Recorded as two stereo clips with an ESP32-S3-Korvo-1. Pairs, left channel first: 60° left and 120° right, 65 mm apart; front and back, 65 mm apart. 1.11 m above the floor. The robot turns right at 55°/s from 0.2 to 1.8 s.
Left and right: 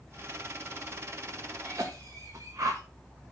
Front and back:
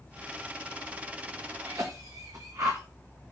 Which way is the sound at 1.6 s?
160° right.